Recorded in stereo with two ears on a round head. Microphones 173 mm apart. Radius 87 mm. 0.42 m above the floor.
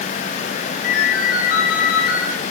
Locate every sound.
0.8 s a ringtone: 55° left (ahead or behind), 4 m